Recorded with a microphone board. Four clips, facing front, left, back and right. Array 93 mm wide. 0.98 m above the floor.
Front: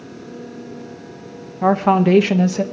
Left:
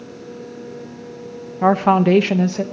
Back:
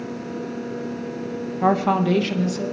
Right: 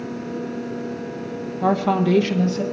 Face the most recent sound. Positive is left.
turn(degrees=35)